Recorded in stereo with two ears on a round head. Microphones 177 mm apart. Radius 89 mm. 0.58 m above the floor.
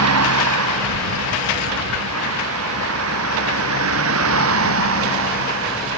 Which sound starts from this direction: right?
A vehicle, at 0.0 s.